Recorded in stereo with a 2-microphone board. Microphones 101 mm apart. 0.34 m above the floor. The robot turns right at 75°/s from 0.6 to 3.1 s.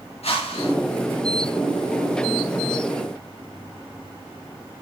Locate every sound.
0.2 s a whoosh: 80° left, 7 m; by 0.7 s 75° left (ahead or behind), 7 m